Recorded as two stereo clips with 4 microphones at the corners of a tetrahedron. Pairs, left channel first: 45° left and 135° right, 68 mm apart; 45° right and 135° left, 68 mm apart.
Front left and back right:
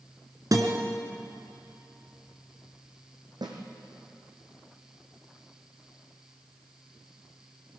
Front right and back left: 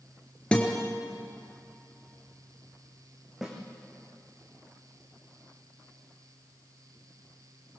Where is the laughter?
I don't hear laughter.